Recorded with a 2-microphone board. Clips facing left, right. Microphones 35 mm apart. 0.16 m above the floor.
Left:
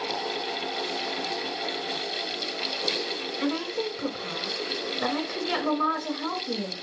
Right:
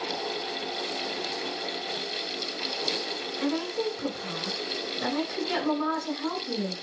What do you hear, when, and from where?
3.4 s a woman speaking: 25° left (ahead or behind), 1.5 m